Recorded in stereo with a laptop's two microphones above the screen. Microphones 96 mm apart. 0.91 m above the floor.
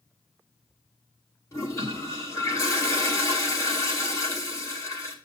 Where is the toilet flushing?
30° left (ahead or behind), 3 m.